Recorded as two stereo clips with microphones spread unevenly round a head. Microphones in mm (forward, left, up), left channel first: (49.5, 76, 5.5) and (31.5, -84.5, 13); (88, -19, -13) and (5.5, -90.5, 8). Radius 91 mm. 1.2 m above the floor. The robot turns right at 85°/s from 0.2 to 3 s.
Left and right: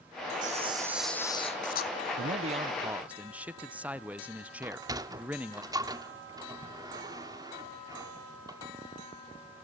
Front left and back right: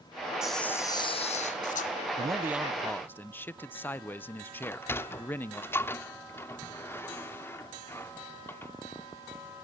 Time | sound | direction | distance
0.4 | a camera shutter | 60° right | 1.7 m
2.2 | a man speaking | 85° right | 0.8 m
4.6 | a sliding door | 35° right | 1.0 m